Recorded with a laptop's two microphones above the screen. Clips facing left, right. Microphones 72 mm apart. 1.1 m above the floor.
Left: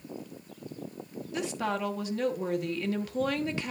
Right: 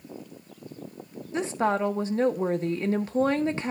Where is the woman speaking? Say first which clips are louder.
Right 6 dB; 30° right (ahead or behind), 0.9 m.